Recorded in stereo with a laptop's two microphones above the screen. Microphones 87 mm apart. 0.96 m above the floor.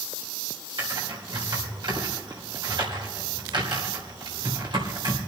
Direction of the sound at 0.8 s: 60° right (ahead or behind).